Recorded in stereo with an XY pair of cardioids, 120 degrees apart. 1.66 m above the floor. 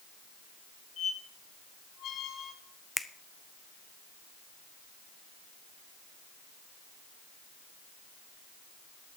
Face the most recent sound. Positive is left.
turn(degrees=10)